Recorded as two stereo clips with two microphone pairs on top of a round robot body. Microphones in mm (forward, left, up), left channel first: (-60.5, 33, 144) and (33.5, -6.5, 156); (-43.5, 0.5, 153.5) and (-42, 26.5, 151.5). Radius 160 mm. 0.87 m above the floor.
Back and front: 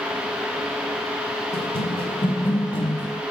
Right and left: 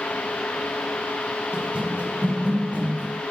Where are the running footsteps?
130° left, 2.5 m; by 3.2 s 105° left, 4 m.